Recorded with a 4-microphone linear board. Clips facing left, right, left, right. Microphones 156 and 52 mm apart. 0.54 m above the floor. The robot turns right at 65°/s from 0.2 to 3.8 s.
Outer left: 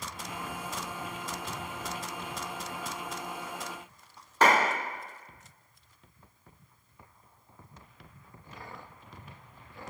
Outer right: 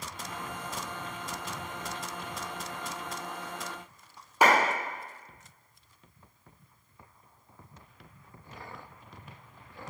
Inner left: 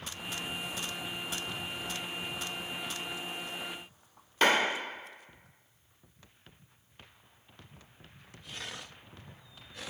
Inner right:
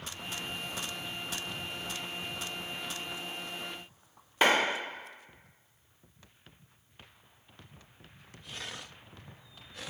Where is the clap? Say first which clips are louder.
Even, even; 15° right (ahead or behind), 1.0 m.